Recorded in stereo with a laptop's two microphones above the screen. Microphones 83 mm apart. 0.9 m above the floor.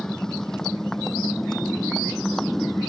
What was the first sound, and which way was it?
A motorcycle, 5° left (ahead or behind).